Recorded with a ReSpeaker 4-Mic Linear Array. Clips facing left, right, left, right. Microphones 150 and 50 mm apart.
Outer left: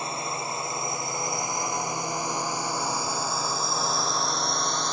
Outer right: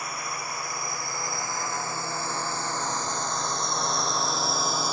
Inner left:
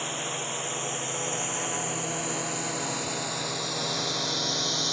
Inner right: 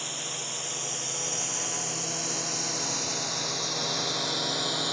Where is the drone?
25° left (ahead or behind); by 5.0 s 5° right (ahead or behind).